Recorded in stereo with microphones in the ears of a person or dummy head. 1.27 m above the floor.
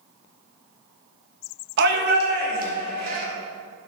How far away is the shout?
About 1.0 m.